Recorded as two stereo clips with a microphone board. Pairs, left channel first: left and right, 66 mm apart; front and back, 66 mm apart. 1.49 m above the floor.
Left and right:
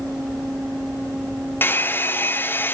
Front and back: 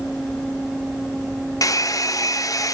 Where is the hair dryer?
30° left, 0.7 m.